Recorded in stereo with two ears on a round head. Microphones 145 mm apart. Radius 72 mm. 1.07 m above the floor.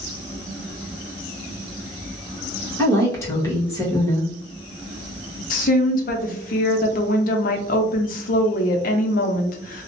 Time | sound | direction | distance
2.8 | a woman speaking | 20° left (ahead or behind) | 1.0 m
5.5 | a woman speaking | 55° left (ahead or behind) | 0.5 m